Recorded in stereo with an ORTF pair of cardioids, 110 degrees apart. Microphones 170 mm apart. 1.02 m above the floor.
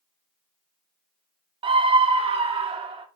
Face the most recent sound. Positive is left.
turn(degrees=-35)